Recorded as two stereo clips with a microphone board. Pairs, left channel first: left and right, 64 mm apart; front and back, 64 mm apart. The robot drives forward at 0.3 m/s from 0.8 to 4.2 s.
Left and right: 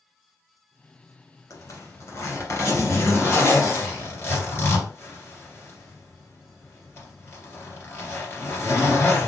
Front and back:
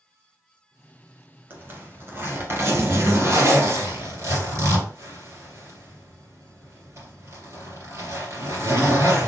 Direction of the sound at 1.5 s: 120° left.